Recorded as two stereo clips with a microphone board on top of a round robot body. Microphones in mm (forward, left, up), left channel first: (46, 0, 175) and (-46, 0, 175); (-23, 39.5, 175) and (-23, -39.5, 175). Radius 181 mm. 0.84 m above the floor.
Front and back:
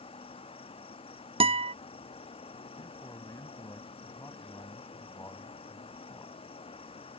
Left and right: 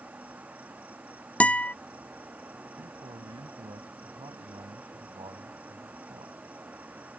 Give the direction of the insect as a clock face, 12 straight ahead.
1 o'clock.